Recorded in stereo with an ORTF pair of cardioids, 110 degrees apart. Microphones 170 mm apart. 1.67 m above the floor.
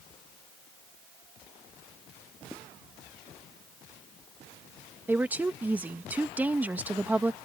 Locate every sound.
2.5 s writing: 5° left
5.1 s a woman speaking: 10° right